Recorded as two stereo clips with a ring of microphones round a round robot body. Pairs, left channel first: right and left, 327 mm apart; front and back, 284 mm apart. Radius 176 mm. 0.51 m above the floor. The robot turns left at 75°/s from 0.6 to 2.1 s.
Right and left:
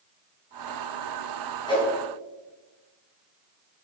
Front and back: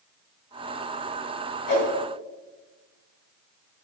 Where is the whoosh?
10° right, 4 m; by 1.9 s 25° right, 4 m.